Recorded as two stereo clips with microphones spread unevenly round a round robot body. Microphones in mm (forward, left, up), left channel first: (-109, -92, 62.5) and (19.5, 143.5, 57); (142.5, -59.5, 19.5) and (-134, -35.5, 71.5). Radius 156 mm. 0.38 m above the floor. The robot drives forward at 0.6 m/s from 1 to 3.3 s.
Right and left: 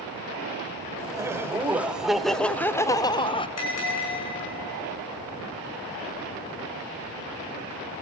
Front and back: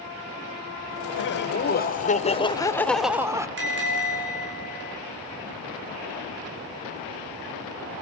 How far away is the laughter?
About 1.6 m.